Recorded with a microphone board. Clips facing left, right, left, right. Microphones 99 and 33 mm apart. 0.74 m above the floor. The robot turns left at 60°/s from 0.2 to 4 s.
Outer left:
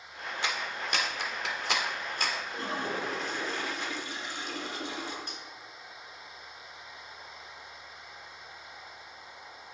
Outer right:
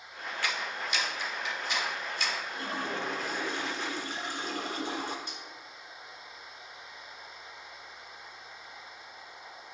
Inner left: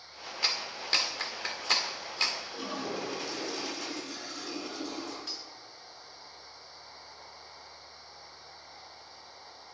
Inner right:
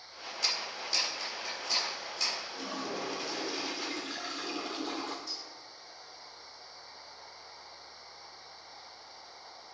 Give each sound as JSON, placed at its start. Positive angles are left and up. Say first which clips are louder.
{"t": 0.4, "sound": "a clap", "louder": "even, inner left 2 dB", "side_deg": 20, "distance_m": 1.5}
{"t": 2.5, "sound": "a toilet flushing", "louder": "outer left 1 dB, inner left 1 dB", "azimuth_deg": 40, "distance_m": 2.0}
{"t": 5.3, "sound": "cutlery clinking", "louder": "even, inner left 1 dB", "side_deg": 55, "distance_m": 1.8}